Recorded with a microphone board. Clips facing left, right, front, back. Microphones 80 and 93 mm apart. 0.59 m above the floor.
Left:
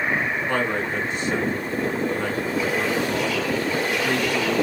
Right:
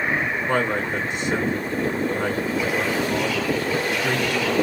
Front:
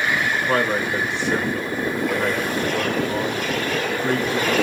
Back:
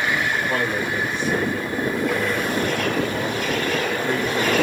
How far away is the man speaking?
About 7.5 m.